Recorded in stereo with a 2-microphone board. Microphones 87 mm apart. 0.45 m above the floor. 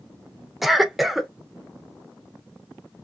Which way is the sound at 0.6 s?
Centre (ahead or behind).